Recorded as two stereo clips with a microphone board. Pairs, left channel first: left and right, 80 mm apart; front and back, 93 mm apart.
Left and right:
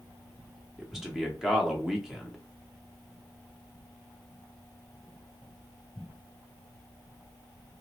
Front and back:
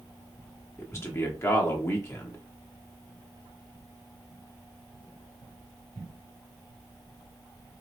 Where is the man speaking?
10° right, 0.7 m.